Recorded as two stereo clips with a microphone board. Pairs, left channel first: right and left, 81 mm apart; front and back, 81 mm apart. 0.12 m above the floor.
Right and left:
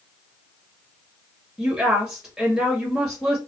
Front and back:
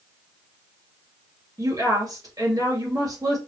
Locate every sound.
1.6 s a woman speaking: 175° left, 2 m